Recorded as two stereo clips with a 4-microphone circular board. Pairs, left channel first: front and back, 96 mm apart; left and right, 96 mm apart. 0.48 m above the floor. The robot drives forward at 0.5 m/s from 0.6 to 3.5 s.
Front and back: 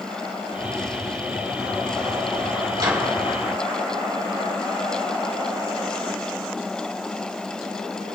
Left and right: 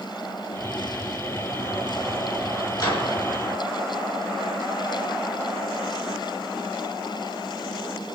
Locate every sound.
2.8 s a microwave: 135° left, 3.5 m